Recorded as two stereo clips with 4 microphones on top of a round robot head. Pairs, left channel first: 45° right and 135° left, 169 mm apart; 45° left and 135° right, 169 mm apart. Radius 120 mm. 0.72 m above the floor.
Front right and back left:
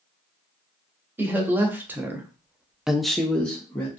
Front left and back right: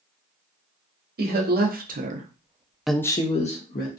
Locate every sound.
1.2 s a woman speaking: 150° right, 1.1 m; by 4.0 s 35° left, 0.8 m